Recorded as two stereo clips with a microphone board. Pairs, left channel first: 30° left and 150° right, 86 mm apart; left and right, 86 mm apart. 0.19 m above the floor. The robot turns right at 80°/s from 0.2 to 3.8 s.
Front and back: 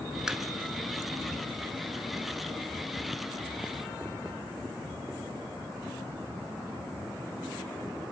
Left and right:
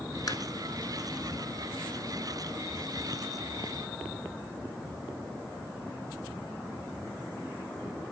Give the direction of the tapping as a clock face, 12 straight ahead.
8 o'clock.